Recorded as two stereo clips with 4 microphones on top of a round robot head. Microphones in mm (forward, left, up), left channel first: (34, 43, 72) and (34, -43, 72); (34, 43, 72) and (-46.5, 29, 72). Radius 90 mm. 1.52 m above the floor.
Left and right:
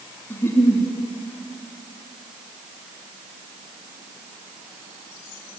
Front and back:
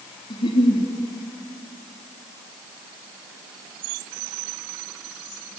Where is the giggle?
30° left, 3.5 m.